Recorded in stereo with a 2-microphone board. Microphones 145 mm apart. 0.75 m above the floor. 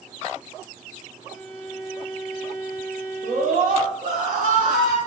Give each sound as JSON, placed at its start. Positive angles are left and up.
{"t": 1.3, "sound": "a violin", "side_deg": -10, "distance_m": 2.5}
{"t": 3.2, "sound": "a scream", "side_deg": -75, "distance_m": 3.5}